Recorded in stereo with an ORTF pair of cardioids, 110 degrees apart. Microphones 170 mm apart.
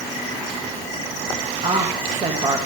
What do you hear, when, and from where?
1.6 s a woman speaking: 30° right, 1.7 m